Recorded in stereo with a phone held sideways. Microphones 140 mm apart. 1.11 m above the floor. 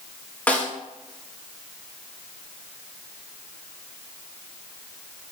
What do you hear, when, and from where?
0.5 s a snare drum: 10° left (ahead or behind), 0.6 m